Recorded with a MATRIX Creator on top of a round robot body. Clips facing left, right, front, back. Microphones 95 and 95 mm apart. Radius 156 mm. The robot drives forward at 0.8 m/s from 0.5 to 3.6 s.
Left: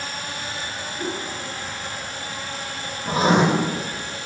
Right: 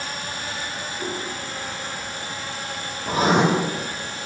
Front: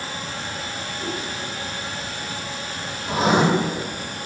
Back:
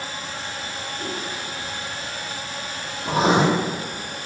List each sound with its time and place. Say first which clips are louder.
1.0 s a whoosh: left 2 dB, front 2 dB; 105° left, 2.0 m; by 1.2 s 110° left, 2 m
3.0 s writing: left 1 dB, back 1 dB; 145° left, 3 m; by 3.4 s 150° left, 3 m